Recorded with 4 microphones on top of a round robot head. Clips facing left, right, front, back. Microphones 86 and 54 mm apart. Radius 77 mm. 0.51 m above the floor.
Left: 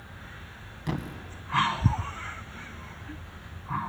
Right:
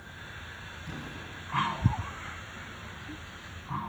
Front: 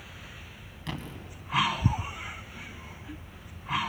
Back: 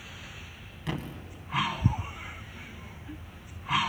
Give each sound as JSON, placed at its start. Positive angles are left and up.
{"t": 0.9, "sound": "a thud", "azimuth_deg": 100, "distance_m": 2.0}